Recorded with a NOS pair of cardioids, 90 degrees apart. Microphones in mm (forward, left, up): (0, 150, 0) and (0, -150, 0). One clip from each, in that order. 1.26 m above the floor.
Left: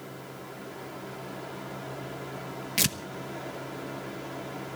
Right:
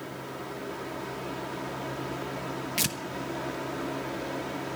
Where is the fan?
35° right, 2 m.